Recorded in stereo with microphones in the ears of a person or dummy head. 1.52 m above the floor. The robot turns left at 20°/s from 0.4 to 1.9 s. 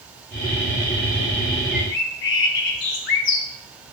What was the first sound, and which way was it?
A bird, 60° left (ahead or behind).